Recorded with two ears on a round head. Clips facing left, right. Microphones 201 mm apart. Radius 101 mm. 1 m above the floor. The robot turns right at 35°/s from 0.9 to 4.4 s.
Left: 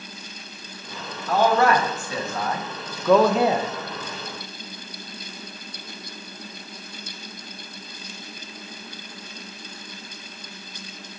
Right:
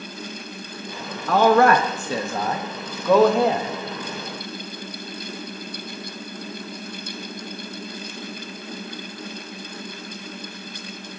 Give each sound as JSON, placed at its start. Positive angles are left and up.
{"t": 1.3, "sound": "a man speaking", "azimuth_deg": -70, "distance_m": 0.6}